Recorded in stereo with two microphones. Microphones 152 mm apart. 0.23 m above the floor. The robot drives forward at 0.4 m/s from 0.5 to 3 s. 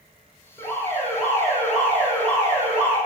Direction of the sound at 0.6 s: 15° left (ahead or behind).